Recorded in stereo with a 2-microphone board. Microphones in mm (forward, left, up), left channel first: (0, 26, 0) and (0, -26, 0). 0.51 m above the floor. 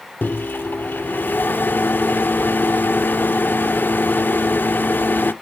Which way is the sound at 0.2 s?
40° left (ahead or behind).